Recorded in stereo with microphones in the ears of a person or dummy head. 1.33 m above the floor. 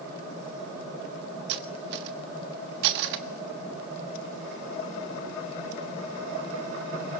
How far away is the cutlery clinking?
About 1.4 m.